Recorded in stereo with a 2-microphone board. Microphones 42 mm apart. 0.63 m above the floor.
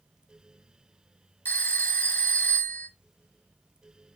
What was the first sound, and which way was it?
A phone ringing, 50° left (ahead or behind).